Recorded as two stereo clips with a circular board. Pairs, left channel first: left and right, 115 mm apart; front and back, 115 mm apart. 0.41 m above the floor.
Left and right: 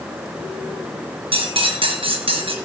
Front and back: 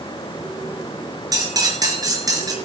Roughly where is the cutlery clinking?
Behind right.